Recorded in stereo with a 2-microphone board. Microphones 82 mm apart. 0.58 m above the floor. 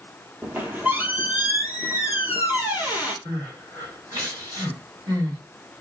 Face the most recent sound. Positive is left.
turn(degrees=-45)  # may be behind; listen again after turning